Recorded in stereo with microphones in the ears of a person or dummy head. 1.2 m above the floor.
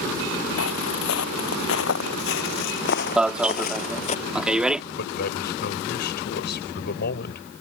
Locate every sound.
0.6 s footsteps: 75° left (ahead or behind); by 4.2 s 35° left (ahead or behind)
3.2 s an alarm: 5° right (ahead or behind)
5.0 s a man speaking: 50° left (ahead or behind)